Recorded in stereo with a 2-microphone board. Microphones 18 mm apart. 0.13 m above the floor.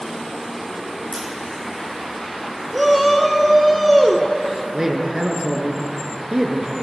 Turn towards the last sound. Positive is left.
turn(degrees=-30)  # may be behind; listen again after turning